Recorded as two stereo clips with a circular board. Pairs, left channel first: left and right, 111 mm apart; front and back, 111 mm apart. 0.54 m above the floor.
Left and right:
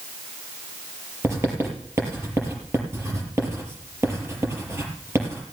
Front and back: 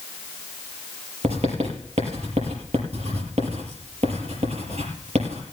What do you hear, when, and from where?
1.2 s writing: 155° right, 5 m